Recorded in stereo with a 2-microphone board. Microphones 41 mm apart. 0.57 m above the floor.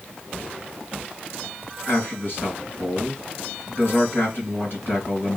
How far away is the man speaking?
About 3 m.